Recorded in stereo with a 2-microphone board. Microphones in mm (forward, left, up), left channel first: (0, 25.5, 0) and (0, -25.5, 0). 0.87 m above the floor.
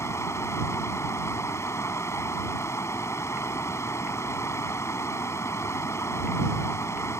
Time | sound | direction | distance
0.0 | running water | 85° left | ?